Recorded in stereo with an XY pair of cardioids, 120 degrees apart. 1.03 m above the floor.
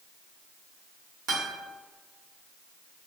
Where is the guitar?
70° right, 1.4 m.